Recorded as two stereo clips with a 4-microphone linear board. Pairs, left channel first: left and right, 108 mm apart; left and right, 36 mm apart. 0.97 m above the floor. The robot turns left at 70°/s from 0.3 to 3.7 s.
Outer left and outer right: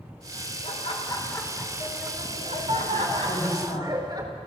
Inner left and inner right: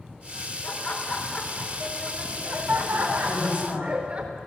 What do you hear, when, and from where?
0.6 s laughter: 70° left, 4 m; by 4.2 s 145° right, 4 m
3.2 s a woman speaking: 110° left, 4.5 m; by 3.9 s 80° left, 4.5 m